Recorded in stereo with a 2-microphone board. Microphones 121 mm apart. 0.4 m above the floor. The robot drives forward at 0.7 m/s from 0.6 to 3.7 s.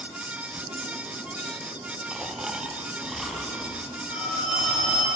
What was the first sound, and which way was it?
Snoring, centre (ahead or behind).